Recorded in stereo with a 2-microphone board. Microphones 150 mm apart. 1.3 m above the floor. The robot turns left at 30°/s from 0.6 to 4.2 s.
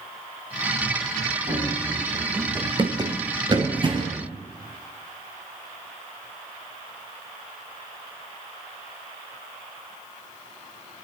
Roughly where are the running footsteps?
Right.